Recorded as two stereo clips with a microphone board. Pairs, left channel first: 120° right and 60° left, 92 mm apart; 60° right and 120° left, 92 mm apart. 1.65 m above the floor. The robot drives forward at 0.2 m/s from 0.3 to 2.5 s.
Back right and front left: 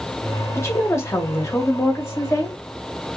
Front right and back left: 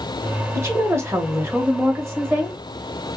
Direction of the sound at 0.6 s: Straight behind.